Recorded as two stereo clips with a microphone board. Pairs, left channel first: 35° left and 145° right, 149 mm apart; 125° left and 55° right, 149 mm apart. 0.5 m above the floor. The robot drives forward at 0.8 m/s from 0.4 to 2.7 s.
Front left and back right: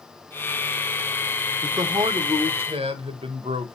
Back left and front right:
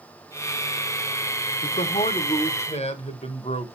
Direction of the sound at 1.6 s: 150° left.